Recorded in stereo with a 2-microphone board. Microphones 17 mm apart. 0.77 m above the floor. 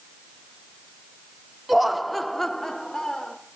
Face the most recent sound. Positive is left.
turn(degrees=25)  # may be behind; listen again after turning